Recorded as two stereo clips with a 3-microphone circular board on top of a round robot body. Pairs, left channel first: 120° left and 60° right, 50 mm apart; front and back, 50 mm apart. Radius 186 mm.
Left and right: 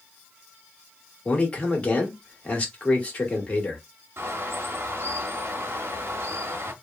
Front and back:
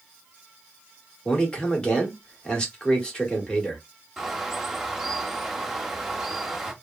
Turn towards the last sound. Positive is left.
turn(degrees=-95)